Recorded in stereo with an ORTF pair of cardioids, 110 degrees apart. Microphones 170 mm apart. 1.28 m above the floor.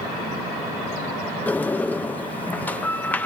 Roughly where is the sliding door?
Ahead.